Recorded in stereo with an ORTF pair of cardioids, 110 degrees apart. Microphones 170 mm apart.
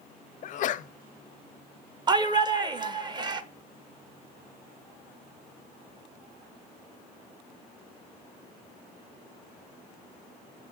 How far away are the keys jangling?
I don't hear keys jangling.